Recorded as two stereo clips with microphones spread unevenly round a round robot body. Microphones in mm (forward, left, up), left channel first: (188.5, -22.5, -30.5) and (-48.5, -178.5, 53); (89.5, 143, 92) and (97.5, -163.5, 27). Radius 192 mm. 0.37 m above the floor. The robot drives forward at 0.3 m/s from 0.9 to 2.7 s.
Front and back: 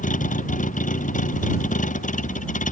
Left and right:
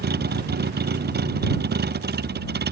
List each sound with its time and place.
0.0 s a vehicle: 30° right